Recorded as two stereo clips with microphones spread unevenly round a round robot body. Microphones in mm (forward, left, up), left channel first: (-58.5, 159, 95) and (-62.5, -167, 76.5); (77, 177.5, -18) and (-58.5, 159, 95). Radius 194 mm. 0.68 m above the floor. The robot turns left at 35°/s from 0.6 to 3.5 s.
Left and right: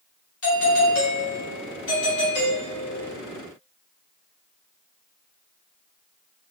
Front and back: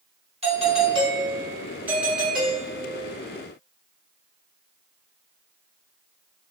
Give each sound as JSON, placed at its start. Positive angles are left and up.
{"t": 0.4, "sound": "a doorbell", "azimuth_deg": 105, "distance_m": 1.4}